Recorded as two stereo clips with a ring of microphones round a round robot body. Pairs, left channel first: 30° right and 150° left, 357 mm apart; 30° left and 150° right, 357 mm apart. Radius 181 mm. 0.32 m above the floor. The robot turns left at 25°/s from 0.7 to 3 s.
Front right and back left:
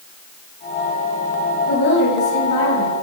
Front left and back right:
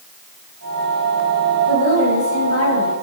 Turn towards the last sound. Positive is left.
turn(degrees=-20)